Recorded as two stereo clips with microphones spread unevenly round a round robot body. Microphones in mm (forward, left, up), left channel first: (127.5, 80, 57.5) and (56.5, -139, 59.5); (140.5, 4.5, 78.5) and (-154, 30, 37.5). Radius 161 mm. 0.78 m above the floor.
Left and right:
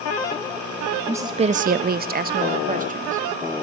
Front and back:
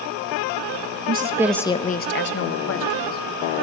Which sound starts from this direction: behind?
A woman speaking, at 1.1 s.